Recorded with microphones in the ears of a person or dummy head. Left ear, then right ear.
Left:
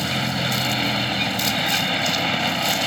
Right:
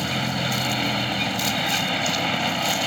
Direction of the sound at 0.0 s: Centre (ahead or behind).